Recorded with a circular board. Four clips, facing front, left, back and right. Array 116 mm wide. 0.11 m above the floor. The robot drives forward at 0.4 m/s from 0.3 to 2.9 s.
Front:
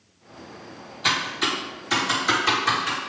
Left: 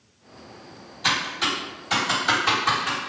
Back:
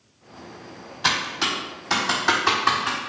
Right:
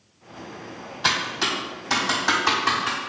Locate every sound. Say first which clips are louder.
1.0 s typing on a keyboard: right 1 dB, even; 135° right, 1.0 m; by 3.0 s 155° right, 1.6 m